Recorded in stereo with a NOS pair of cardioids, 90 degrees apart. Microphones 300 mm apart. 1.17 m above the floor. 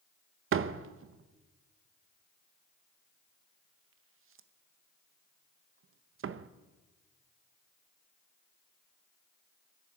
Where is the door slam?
45° right, 0.8 m.